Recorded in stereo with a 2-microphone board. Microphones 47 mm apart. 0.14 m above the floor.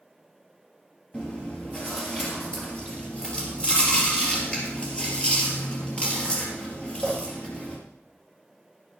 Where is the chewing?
25° left (ahead or behind), 3 m.